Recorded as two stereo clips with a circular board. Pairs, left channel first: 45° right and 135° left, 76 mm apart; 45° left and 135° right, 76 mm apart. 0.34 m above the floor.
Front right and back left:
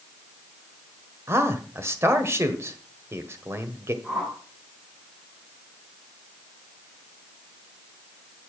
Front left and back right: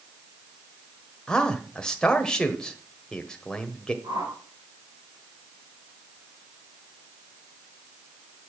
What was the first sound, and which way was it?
A man speaking, 120° left.